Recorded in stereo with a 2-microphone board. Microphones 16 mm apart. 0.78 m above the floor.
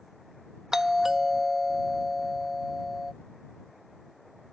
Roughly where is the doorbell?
Right.